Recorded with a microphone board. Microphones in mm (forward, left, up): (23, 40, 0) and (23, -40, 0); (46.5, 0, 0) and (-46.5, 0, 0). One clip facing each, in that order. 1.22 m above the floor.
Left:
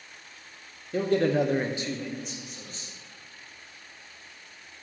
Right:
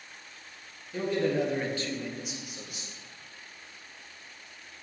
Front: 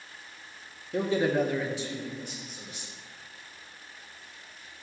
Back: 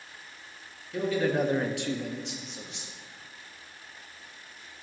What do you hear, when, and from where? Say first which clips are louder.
0.9 s a man speaking: left 4 dB, front 1 dB; 55° left, 0.9 m; by 2.9 s 165° right, 2 m